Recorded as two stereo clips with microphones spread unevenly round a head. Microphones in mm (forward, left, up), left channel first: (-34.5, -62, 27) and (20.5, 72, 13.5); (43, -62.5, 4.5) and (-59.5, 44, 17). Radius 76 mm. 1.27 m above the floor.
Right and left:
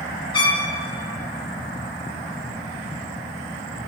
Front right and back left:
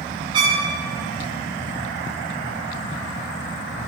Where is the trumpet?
170° right, 5 m.